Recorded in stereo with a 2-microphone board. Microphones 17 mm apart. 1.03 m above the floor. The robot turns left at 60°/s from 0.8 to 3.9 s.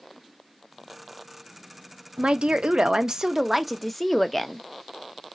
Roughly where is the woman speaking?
Right.